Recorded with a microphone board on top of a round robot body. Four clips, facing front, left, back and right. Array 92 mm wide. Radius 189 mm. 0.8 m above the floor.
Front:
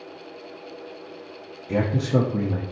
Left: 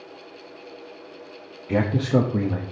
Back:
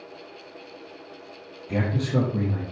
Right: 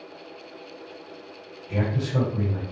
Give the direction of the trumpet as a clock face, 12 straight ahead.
I don't hear a trumpet.